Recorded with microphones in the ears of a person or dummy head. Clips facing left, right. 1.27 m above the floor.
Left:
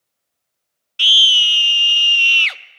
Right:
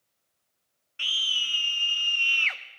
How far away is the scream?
About 0.7 m.